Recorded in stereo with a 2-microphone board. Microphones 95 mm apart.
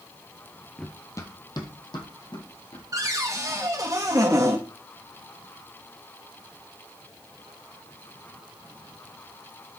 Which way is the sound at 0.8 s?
15° left (ahead or behind).